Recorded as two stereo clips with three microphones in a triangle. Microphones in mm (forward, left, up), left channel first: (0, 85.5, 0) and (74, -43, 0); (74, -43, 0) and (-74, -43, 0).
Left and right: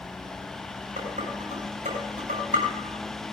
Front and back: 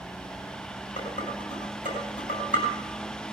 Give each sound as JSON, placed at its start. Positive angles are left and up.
{"t": 1.0, "sound": "dishes clattering", "azimuth_deg": -25, "distance_m": 5.0}